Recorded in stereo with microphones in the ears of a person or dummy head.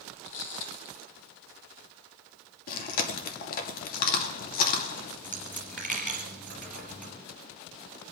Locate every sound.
0.2 s footsteps: 45° left (ahead or behind), 1.7 m
2.7 s chewing: 55° left (ahead or behind), 2.5 m
5.2 s a dropped coin: 5° left (ahead or behind), 1.7 m